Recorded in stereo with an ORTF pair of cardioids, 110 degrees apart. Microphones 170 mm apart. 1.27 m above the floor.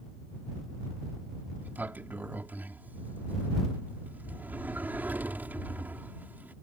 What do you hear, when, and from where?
1.6 s a sliding door: 10° right